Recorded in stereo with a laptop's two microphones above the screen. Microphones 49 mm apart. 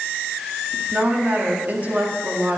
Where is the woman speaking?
40° right (ahead or behind), 1.8 m.